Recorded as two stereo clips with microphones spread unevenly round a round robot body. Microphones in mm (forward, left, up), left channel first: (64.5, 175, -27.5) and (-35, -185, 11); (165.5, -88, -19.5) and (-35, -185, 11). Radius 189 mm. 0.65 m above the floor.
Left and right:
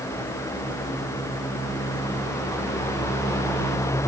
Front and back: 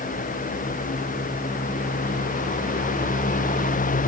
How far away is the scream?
I don't hear a scream.